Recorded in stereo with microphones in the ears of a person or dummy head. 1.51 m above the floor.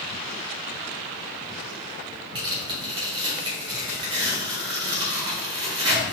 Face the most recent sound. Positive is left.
turn(degrees=-30)  # may be behind; listen again after turning